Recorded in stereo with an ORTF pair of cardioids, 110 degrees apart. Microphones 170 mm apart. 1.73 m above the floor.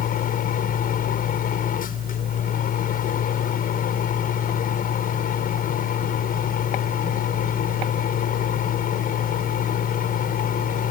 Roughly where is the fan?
Ahead left.